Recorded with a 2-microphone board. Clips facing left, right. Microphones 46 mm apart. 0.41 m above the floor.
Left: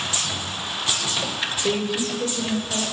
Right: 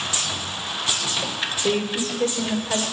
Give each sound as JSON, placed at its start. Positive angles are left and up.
{"t": 1.6, "sound": "a woman speaking", "side_deg": -15, "distance_m": 1.5}